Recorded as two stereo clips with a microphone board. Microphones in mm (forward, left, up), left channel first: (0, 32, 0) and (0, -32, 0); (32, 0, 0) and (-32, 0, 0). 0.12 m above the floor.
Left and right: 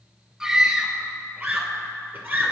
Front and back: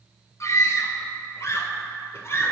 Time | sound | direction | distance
0.4 | a scream | 15° right | 2 m